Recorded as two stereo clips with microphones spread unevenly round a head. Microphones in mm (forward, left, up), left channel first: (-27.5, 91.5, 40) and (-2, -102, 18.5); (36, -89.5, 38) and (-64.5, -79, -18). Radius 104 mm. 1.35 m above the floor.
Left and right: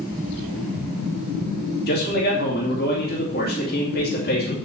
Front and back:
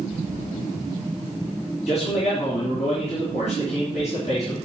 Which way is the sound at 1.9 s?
55° left.